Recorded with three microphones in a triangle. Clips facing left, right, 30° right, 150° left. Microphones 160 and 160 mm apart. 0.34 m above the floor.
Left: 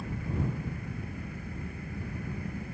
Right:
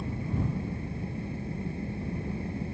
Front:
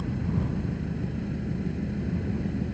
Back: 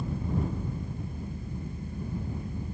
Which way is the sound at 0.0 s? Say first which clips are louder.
Right 2 dB, front 2 dB; 30° right.